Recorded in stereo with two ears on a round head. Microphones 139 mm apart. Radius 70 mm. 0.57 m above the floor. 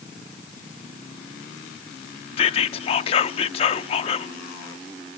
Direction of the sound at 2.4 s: 35° left (ahead or behind).